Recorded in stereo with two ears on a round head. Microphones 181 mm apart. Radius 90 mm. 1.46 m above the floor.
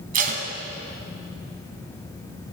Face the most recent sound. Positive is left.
turn(degrees=-45)  # may be behind; listen again after turning